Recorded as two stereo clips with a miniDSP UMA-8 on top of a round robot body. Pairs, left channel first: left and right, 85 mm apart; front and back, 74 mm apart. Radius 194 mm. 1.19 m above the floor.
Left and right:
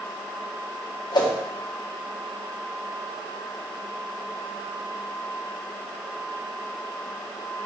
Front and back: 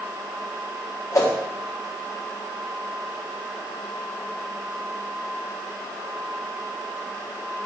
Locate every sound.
1.1 s a whoosh: 50° left, 1.5 m